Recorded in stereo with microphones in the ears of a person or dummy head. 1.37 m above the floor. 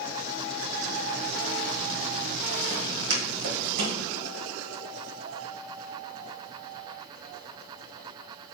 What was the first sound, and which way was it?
Footsteps, 55° right (ahead or behind).